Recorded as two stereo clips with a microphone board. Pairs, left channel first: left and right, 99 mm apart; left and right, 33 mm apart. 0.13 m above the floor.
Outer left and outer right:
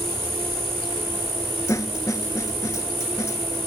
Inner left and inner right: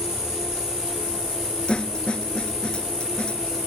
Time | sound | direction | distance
0.0 | an insect | 20° right (ahead or behind) | 5.5 m
1.7 | a snare drum | 30° left (ahead or behind) | 0.8 m